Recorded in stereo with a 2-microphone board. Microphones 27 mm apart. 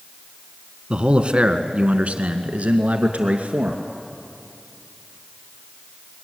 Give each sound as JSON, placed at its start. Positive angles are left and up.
{"t": 0.9, "sound": "a man speaking", "side_deg": -35, "distance_m": 1.5}